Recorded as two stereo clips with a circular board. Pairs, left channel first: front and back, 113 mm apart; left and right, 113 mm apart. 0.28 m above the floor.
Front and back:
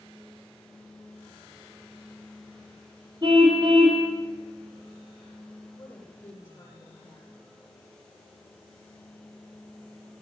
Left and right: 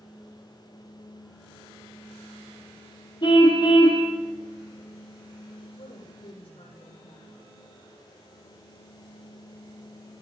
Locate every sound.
3.2 s a car horn: 130° left, 4 m
5.8 s a woman speaking: 70° left, 8.5 m